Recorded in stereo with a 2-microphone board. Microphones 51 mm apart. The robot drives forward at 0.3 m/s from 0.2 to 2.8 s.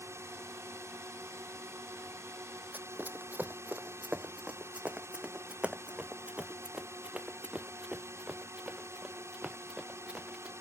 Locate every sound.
0.0 s a drone: 65° right (ahead or behind)
2.7 s running footsteps: 40° right (ahead or behind); by 10.5 s 15° right (ahead or behind)